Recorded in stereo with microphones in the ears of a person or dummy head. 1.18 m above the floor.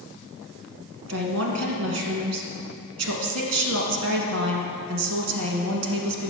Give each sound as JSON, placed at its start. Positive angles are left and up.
{"t": 1.1, "sound": "a woman speaking", "side_deg": -75, "distance_m": 1.2}